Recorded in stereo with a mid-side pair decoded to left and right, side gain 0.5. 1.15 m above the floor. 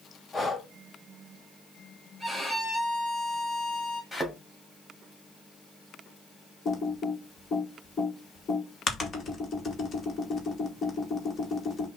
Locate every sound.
0.3 s breathing: 20° left, 1.3 m
2.2 s a violin: 10° left, 3 m
4.1 s a thud: 15° left, 2.5 m
6.7 s typing on a keyboard: 40° left, 1.7 m